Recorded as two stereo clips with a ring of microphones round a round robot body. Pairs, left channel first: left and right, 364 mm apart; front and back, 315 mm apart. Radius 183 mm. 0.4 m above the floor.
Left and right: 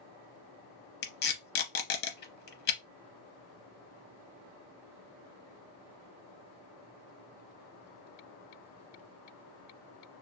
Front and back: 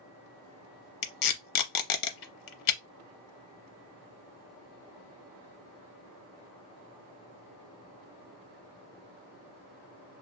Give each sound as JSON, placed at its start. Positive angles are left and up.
{"t": 1.0, "sound": "tape being pulled", "azimuth_deg": 25, "distance_m": 0.7}